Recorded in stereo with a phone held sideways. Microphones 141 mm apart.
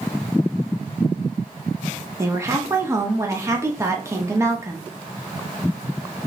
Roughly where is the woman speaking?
Centre.